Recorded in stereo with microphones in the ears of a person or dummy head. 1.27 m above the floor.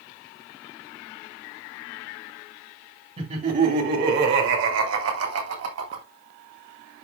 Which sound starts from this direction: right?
Laughter, at 3.2 s.